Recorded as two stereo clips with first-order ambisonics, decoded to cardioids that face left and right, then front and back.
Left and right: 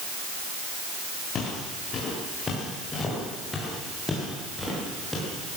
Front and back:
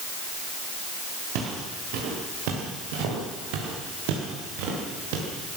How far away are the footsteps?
About 7.5 m.